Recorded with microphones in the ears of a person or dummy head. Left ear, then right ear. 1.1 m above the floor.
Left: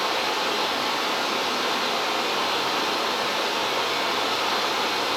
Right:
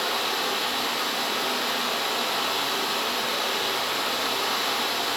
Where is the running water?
55° right (ahead or behind), 2.0 m.